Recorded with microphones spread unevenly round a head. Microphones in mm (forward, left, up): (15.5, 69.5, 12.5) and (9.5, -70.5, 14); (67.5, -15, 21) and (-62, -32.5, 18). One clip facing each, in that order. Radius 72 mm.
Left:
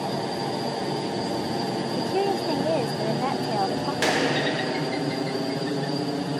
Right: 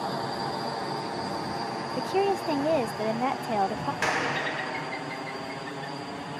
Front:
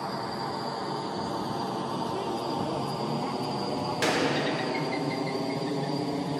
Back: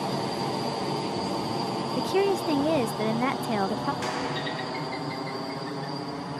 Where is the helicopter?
135° left; by 6.4 s 65° left.